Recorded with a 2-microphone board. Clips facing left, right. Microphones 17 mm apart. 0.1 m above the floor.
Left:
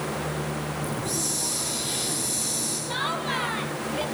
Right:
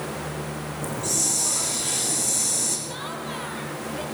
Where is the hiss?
75° right (ahead or behind), 7.5 m.